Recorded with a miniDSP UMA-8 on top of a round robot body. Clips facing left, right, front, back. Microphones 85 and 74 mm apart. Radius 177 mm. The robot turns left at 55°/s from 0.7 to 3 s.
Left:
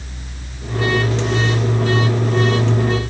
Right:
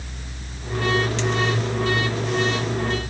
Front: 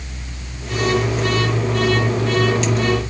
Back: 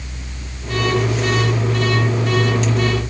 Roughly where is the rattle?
No rattle in this recording.